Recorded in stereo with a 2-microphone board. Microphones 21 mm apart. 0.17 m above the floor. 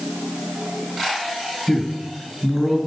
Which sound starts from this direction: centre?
A man speaking, at 1.7 s.